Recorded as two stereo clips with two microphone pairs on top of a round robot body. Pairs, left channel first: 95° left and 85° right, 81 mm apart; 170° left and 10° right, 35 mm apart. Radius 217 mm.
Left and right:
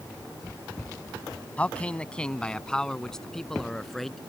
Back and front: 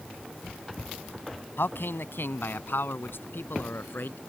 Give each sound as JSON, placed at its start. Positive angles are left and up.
{"t": 1.6, "sound": "a man speaking", "azimuth_deg": 170}